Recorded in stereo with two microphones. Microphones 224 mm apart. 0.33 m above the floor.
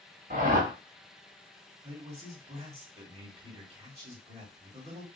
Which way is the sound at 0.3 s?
45° right (ahead or behind).